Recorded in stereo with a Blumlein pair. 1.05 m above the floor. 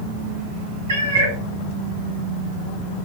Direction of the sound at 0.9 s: 65° right.